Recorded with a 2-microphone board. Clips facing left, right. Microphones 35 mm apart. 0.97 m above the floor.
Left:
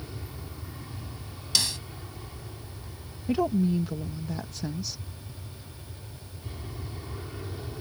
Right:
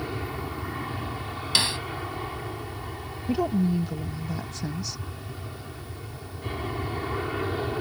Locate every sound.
0.0 s an aircraft: 55° right (ahead or behind)
1.6 s a snare drum: 35° right (ahead or behind)
3.3 s a woman speaking: 5° left (ahead or behind)